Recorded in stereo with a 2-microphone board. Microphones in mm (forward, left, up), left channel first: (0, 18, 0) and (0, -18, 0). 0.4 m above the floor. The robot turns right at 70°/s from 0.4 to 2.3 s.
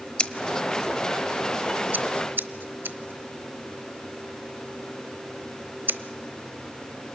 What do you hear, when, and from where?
0.2 s scissors: 30° left (ahead or behind), 0.9 m; by 6.0 s 65° right (ahead or behind), 0.9 m